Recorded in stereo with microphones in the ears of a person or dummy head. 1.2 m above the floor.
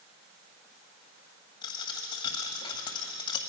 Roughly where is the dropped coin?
Left.